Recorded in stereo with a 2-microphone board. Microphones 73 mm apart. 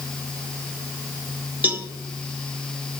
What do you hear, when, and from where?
1.6 s a cowbell: 25° right (ahead or behind), 1.0 m